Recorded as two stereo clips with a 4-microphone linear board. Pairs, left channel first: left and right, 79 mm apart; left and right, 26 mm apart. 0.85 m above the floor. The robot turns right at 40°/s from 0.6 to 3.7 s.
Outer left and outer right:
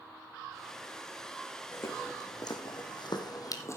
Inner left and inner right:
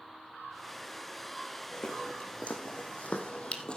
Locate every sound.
1.7 s footsteps: 25° left (ahead or behind), 4.5 m; by 3.8 s 40° left (ahead or behind), 1.9 m